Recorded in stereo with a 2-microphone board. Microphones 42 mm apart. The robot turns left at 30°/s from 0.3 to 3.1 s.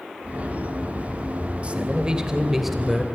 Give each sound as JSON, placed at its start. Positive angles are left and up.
{"t": 1.6, "sound": "a man speaking", "azimuth_deg": -145, "distance_m": 2.5}